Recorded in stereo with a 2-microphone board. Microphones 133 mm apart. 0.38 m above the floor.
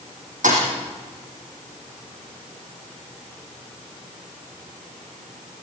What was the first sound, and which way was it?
A thud, 85° right.